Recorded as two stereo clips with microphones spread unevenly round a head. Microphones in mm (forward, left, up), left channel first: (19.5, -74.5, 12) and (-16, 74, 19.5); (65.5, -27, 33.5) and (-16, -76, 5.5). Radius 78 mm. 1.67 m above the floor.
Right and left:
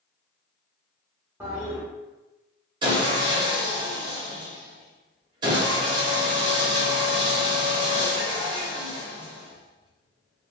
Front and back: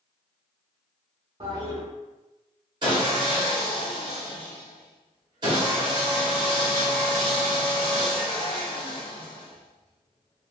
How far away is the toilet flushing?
About 0.7 m.